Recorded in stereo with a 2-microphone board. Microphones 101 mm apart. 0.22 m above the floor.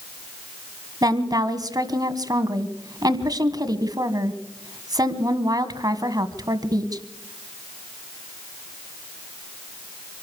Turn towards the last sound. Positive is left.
turn(degrees=-40)  # may be behind; listen again after turning